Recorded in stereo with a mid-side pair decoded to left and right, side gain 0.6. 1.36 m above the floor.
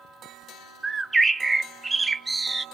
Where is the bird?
20° right, 0.5 m.